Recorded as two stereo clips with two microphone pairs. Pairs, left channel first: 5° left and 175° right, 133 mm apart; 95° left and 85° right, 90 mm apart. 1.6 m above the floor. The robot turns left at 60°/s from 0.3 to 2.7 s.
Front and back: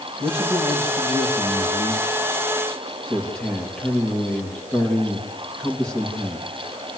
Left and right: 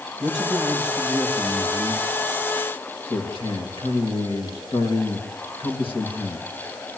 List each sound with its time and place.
0.2 s a man speaking: 130° right, 3 m; by 6.5 s 90° left, 3 m